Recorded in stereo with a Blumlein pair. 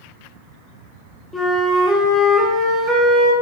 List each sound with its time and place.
1.3 s a flute: 10° left, 0.7 m